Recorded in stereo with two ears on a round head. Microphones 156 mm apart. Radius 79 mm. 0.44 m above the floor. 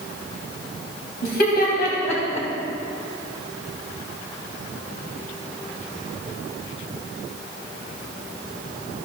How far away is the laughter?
About 2.5 m.